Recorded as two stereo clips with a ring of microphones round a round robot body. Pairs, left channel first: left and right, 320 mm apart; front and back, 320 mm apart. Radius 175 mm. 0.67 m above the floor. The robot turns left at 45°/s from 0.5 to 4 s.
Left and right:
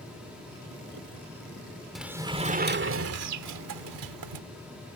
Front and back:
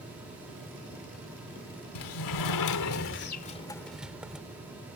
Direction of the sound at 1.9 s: Straight ahead.